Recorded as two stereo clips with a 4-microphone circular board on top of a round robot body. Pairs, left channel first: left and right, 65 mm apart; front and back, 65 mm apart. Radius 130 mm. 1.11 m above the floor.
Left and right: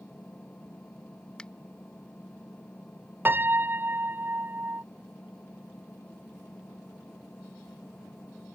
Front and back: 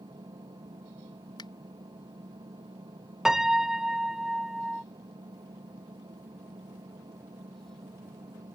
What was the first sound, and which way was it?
An engine running, 165° left.